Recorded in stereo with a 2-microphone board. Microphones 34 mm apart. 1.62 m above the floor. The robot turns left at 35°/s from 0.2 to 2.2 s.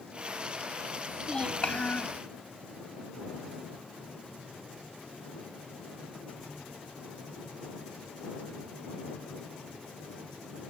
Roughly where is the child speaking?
Behind.